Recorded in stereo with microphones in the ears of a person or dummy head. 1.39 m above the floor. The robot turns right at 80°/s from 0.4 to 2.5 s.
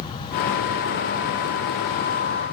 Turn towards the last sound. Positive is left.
No sound to turn to.